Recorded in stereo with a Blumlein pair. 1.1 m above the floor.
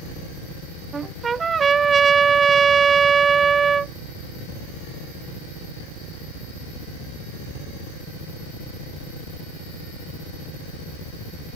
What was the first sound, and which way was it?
A trumpet, 20° right.